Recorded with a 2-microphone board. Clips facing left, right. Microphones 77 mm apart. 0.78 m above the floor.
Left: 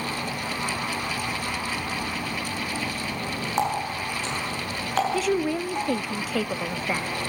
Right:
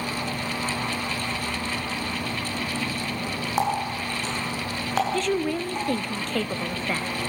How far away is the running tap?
About 6.5 m.